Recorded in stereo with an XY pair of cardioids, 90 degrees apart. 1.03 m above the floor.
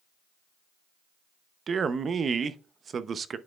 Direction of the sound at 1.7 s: 50° right.